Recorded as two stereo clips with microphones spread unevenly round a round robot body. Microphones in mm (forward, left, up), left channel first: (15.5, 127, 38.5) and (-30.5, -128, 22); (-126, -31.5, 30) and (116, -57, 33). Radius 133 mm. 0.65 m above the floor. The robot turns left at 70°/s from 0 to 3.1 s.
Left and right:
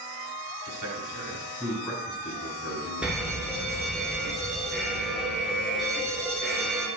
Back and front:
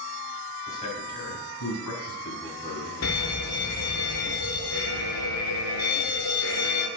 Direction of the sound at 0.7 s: 105° right.